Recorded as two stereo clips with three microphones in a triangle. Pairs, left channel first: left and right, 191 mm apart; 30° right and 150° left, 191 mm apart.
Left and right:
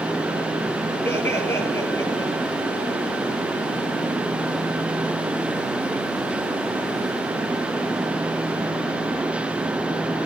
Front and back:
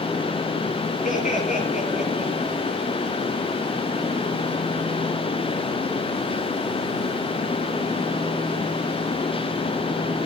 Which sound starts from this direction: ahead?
Laughter, at 1.0 s.